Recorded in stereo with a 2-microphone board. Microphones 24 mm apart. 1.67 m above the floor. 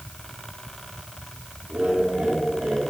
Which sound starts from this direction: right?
Laughter, at 1.7 s.